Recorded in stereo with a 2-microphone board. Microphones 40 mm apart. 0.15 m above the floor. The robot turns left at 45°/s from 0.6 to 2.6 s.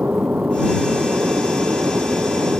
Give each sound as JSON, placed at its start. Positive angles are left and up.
{"t": 0.0, "sound": "an aircraft", "side_deg": -40}